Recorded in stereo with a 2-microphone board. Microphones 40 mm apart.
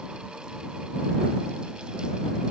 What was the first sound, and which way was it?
Only background noise.